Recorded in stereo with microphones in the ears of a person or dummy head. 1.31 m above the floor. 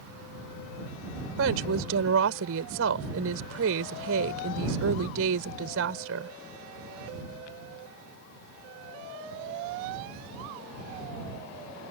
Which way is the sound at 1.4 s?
80° right.